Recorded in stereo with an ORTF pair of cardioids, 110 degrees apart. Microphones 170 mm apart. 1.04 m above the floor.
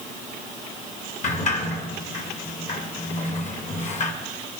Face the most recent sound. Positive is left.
turn(degrees=45)